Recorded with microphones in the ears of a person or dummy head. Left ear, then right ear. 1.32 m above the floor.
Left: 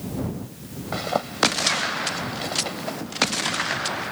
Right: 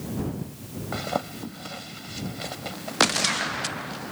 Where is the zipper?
15° left (ahead or behind).